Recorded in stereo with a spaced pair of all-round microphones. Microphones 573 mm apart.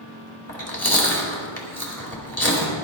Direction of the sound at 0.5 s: 25° left (ahead or behind).